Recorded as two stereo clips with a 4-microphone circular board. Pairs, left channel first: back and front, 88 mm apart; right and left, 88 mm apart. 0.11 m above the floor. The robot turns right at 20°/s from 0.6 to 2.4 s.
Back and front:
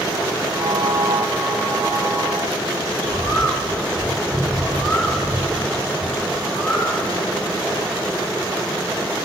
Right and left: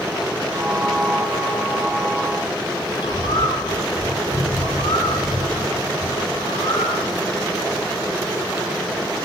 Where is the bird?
95° right, 3.5 m.